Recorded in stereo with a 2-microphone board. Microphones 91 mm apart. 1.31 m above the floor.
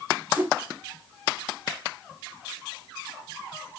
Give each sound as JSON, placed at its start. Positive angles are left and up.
{"t": 0.4, "sound": "a whoosh", "side_deg": -20, "distance_m": 0.9}